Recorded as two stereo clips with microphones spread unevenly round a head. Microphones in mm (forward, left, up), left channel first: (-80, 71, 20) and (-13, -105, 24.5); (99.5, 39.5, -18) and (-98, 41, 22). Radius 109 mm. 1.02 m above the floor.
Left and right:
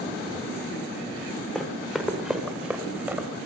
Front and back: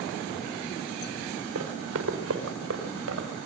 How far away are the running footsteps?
About 5.5 m.